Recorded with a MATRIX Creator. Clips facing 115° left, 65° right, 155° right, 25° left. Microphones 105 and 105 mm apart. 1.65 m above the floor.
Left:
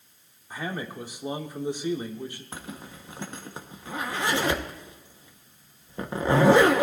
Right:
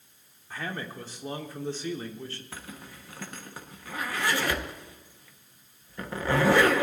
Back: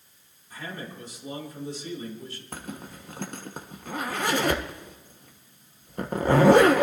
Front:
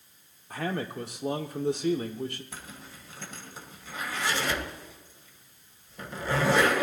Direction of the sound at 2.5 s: 175° left.